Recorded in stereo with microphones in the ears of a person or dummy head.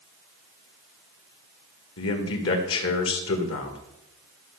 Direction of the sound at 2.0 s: 70° left (ahead or behind).